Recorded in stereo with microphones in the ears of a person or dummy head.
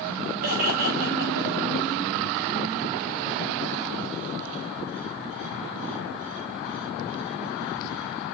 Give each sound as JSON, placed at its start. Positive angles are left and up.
{"t": 0.4, "sound": "laughter", "side_deg": -40, "distance_m": 4.5}